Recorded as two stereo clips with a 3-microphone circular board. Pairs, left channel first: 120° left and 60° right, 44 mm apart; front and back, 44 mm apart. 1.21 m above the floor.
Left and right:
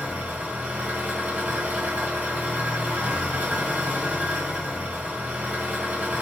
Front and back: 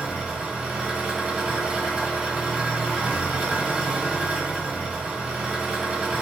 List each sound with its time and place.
0.0 s an engine running: 110° right, 1.1 m